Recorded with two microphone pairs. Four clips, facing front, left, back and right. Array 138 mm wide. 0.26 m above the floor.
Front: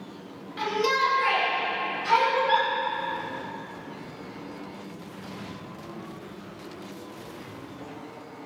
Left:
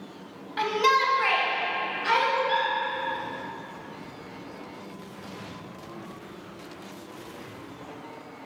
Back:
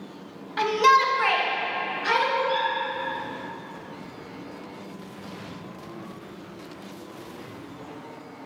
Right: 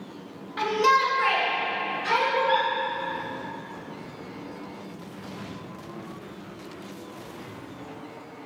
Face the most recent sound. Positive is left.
turn(degrees=-5)